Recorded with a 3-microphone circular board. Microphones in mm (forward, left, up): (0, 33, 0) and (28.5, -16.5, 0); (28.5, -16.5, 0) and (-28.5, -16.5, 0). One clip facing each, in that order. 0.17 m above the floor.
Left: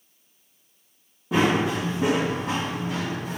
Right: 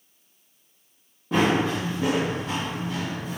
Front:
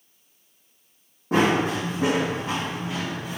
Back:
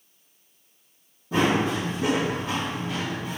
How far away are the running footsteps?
About 1.1 m.